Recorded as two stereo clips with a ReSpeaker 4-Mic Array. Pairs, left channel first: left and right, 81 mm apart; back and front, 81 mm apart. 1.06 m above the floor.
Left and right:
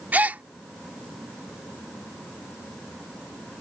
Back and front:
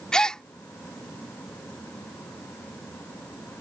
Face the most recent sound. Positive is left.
turn(degrees=-115)